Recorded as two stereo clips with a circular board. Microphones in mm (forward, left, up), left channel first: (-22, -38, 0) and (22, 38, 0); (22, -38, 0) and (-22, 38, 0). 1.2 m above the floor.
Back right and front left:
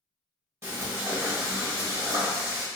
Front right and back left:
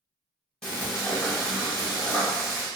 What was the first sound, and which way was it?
Frying, 20° left.